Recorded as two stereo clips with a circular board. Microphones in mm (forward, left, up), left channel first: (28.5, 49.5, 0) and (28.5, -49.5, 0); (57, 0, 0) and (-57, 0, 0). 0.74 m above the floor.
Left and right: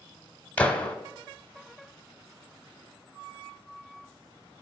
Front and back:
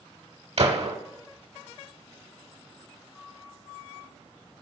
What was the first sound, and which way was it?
A gunshot, 165° left.